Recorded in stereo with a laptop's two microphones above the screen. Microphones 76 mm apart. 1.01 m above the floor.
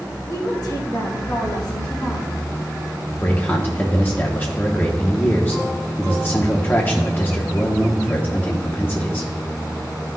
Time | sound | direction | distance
0.3 | a woman speaking | 50° left (ahead or behind) | 1.1 m
3.1 | a man speaking | 25° left (ahead or behind) | 0.8 m